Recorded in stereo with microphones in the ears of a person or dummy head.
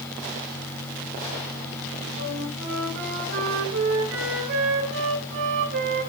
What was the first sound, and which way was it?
A flute, 65° right (ahead or behind).